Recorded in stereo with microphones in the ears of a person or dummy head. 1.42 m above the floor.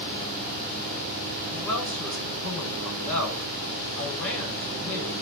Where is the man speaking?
10° left (ahead or behind), 8.5 m.